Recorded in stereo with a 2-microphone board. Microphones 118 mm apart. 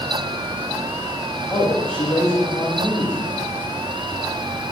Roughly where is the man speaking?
Centre.